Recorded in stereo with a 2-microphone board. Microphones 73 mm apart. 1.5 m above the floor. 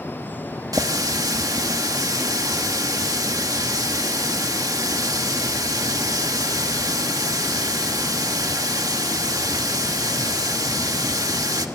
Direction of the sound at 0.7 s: 55° right (ahead or behind).